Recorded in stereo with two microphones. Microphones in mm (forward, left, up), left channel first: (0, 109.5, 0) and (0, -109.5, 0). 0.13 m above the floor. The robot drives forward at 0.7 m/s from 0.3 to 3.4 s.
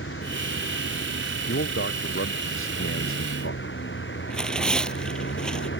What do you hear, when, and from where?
0.0 s a vehicle: 60° left (ahead or behind)
1.5 s a man speaking: 60° left (ahead or behind); by 3.6 s 70° left (ahead or behind)
4.3 s tearing paper: 5° left (ahead or behind)